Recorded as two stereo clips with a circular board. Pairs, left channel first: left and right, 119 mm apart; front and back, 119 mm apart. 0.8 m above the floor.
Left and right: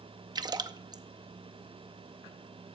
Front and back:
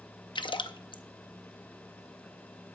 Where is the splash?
40° right, 0.6 m.